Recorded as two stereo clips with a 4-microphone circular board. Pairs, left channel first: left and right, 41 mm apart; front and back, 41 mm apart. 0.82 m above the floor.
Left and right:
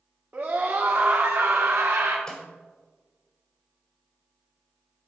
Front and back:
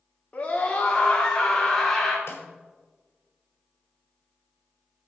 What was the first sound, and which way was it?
A scream, 60° right.